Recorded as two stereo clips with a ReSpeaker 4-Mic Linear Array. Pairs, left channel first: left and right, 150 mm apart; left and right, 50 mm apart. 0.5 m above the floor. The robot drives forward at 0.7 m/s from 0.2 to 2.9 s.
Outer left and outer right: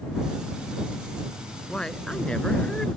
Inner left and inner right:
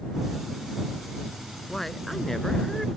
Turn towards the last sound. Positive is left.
turn(degrees=5)  # may be behind; listen again after turning